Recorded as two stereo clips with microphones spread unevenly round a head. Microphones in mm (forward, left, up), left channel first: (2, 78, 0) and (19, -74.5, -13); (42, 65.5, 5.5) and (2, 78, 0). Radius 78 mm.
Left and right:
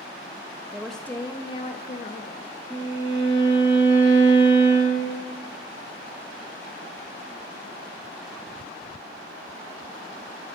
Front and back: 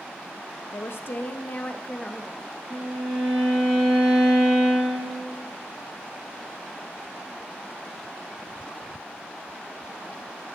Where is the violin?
175° left, 4.5 m.